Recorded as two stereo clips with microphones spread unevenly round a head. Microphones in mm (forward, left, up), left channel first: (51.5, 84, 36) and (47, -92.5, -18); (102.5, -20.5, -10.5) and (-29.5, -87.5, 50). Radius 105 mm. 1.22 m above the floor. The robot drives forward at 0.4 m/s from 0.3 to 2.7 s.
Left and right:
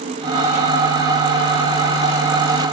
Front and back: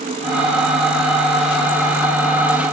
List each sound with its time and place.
Only background noise.